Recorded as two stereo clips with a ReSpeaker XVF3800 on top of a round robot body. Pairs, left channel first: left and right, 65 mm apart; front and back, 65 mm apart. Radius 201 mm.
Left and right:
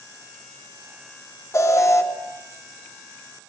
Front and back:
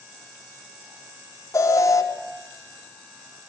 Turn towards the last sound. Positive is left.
turn(degrees=45)